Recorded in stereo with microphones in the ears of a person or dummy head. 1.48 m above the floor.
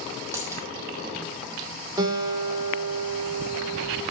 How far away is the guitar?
About 2 m.